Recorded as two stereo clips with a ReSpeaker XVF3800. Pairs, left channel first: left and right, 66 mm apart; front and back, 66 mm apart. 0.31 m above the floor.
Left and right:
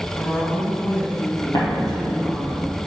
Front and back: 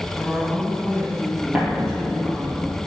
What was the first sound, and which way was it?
A woman speaking, 90° left.